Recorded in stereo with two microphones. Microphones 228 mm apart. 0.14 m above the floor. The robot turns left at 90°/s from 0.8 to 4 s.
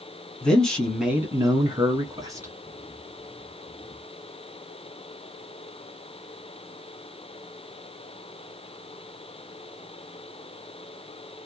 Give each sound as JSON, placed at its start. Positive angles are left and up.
{"t": 0.4, "sound": "a man speaking", "side_deg": 5, "distance_m": 1.2}